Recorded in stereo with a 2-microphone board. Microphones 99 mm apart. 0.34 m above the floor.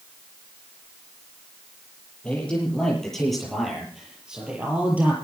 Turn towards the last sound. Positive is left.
turn(degrees=-15)  # may be behind; listen again after turning